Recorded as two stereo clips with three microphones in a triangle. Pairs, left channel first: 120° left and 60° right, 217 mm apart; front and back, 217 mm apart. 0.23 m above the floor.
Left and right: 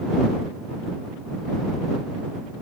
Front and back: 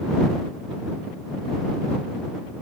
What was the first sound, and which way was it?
Only background noise.